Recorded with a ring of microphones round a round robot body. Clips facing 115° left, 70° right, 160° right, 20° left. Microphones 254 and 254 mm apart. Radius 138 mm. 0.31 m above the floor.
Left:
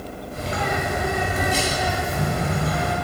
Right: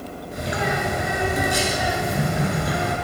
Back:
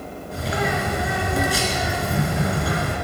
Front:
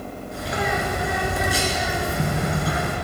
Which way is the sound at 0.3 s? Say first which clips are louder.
Right 1 dB, back 2 dB; 145° right.